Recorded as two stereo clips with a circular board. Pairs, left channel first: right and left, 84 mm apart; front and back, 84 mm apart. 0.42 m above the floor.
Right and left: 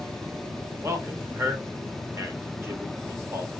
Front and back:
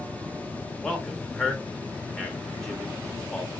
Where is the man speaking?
80° left, 0.8 m.